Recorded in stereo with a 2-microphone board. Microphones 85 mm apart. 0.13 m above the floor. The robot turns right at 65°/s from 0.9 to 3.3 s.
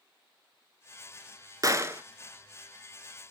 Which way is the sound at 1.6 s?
45° right (ahead or behind).